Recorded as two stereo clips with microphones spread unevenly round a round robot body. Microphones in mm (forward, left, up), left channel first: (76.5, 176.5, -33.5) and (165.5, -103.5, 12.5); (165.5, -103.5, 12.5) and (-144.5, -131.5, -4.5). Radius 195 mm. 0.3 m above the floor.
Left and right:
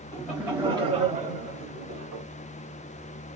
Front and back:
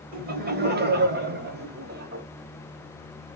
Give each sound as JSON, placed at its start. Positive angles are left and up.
{"t": 0.1, "sound": "laughter", "azimuth_deg": 170, "distance_m": 1.3}